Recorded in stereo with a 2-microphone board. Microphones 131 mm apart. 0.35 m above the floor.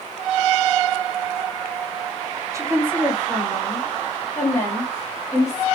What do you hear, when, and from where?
2.5 s a woman speaking: 25° right (ahead or behind), 1.2 m; by 5.6 s 30° left (ahead or behind), 2 m